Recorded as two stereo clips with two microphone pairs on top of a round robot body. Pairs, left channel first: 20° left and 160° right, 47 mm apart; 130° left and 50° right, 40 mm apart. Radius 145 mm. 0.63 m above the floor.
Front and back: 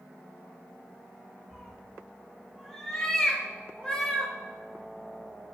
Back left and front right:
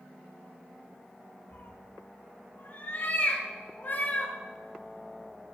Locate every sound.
1.5 s a cat meowing: 110° left, 5.5 m; by 4.3 s 95° left, 4.5 m